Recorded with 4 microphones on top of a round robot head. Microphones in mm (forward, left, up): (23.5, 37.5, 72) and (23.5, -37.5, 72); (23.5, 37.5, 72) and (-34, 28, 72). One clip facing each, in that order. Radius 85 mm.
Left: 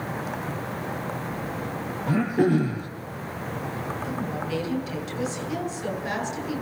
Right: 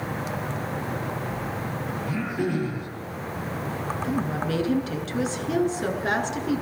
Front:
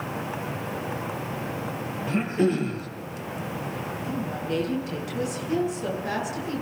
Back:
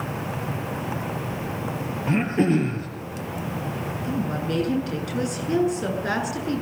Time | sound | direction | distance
2.1 | throat clearing | 145° left | 6 m
4.0 | a woman speaking | 135° right | 8 m